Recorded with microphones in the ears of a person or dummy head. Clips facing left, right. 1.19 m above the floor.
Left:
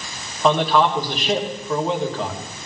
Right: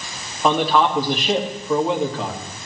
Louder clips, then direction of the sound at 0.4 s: Even; 5° right (ahead or behind).